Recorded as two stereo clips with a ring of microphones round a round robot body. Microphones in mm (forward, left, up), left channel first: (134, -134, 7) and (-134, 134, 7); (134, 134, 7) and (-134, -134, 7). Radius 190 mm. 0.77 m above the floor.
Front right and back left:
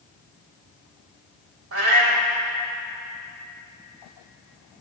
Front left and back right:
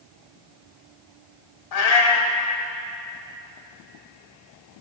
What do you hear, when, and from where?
1.7 s a cat meowing: 80° left, 1.0 m